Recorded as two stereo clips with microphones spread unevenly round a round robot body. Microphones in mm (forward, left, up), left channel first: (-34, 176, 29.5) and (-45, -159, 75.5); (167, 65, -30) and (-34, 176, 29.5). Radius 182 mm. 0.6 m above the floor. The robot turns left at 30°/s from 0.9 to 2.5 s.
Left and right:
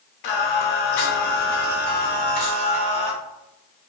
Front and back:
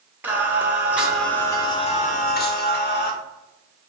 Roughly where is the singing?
Ahead left.